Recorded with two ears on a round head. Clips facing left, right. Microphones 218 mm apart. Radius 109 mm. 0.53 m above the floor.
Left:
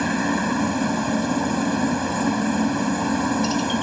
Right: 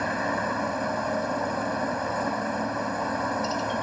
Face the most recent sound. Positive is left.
turn(degrees=50)  # may be behind; listen again after turning